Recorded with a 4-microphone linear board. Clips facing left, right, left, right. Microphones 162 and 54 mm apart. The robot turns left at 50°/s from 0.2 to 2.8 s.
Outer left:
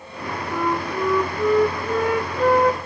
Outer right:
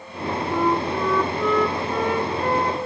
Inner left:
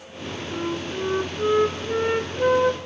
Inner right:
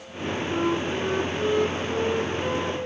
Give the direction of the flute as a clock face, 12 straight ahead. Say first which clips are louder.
Outer right 2 dB, inner right 3 dB; 5 o'clock.